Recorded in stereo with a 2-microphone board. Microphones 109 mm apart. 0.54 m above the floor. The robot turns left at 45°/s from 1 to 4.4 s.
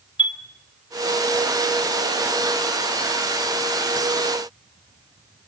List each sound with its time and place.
0.2 s a chime: 50° left (ahead or behind), 1.8 m